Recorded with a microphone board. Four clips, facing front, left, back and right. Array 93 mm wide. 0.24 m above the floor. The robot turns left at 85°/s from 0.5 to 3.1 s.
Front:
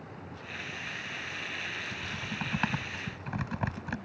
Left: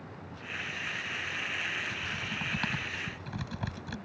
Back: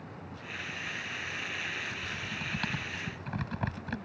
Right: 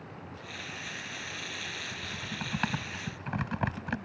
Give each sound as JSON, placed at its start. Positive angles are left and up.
{"t": 1.9, "sound": "typing on a keyboard", "azimuth_deg": 25}